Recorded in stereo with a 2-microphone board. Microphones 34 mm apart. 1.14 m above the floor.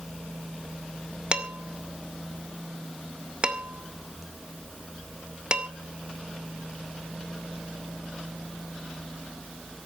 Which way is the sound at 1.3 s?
35° right (ahead or behind).